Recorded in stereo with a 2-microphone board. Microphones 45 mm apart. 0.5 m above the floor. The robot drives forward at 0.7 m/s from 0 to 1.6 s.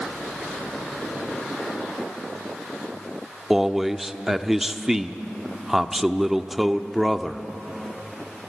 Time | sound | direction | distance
3.5 | a man speaking | 5° right (ahead or behind) | 0.8 m